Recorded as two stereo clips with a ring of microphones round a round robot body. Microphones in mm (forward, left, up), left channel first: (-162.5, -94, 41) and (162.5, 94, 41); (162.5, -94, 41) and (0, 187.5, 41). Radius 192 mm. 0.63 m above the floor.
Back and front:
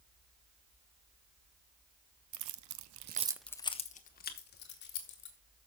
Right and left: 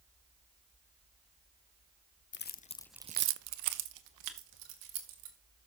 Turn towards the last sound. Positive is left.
turn(degrees=150)